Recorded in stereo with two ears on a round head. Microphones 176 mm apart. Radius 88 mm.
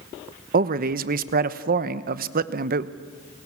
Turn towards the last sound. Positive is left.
turn(degrees=-45)  # may be behind; listen again after turning